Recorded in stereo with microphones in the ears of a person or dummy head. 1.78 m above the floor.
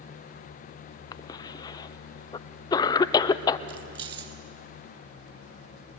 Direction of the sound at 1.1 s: 25° left (ahead or behind).